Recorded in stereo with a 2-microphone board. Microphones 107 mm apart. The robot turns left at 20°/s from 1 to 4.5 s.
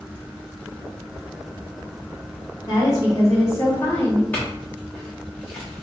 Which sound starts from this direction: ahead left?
A woman speaking, at 2.7 s.